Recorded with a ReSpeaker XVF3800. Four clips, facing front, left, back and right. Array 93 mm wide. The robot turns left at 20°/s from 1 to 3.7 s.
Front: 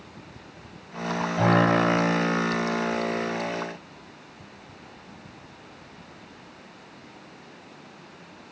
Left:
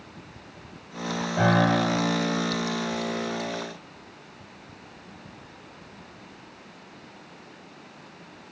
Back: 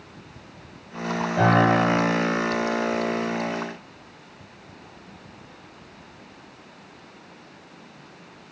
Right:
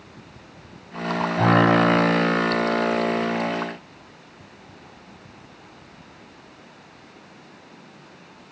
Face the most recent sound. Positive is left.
turn(degrees=110)